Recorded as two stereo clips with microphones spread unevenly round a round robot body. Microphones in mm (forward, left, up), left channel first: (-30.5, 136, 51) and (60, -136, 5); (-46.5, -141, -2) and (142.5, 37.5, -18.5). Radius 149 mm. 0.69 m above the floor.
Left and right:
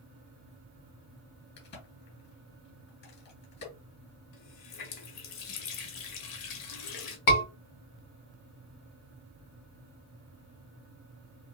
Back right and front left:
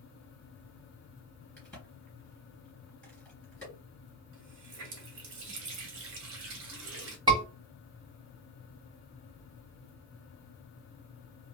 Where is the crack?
140° left, 3 m.